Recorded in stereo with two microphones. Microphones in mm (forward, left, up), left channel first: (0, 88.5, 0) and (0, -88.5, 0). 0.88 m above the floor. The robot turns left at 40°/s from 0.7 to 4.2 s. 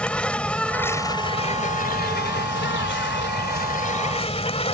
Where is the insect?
175° left; by 4.7 s 35° left.